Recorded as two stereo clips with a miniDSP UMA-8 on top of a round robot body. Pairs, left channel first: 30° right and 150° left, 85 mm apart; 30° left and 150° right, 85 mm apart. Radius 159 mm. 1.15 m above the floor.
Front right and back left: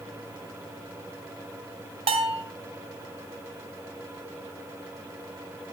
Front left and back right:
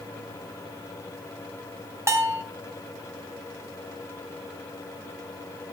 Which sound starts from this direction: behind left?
A bell, at 2.1 s.